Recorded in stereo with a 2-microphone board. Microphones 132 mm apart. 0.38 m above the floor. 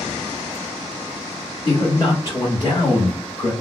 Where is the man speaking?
40° left (ahead or behind), 1.8 m; by 3.5 s 10° left (ahead or behind), 1.9 m.